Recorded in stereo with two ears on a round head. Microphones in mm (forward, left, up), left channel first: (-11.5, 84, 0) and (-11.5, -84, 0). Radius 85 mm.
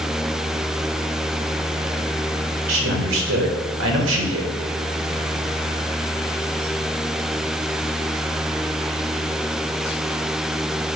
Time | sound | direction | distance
2.7 | a man speaking | 75° right (ahead or behind) | 1.4 m